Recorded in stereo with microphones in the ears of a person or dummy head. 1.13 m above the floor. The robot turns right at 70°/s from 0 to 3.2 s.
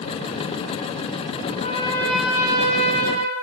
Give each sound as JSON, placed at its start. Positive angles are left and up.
{"t": 1.5, "sound": "a trumpet", "azimuth_deg": 130, "distance_m": 5.5}